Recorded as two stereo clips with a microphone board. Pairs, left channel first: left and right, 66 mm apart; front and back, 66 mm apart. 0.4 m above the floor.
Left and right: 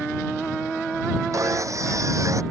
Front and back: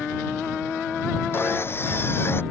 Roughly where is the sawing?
Ahead right.